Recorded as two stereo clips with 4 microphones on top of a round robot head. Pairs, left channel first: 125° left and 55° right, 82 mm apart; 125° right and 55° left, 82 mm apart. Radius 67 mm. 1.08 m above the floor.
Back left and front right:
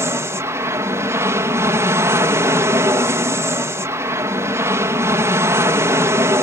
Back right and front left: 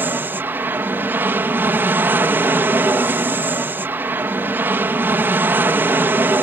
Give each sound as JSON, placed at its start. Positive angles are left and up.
{"t": 0.0, "sound": "an aircraft", "azimuth_deg": -5}